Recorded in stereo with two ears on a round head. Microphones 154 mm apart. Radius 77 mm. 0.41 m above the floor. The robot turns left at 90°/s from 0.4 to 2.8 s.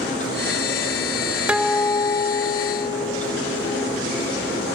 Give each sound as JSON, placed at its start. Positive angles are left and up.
{"t": 1.5, "sound": "a guitar", "azimuth_deg": -165, "distance_m": 1.3}